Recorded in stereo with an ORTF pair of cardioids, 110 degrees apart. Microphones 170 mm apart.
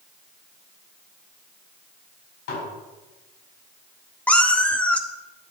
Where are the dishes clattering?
65° left, 6 m.